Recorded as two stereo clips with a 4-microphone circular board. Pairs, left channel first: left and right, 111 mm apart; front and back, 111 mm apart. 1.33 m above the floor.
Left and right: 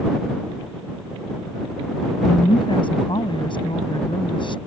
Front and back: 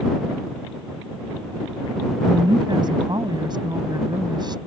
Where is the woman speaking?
130° left.